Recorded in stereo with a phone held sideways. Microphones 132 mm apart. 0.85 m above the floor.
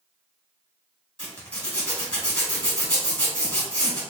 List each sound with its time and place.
1.2 s a zipper: 10° left (ahead or behind), 1.5 m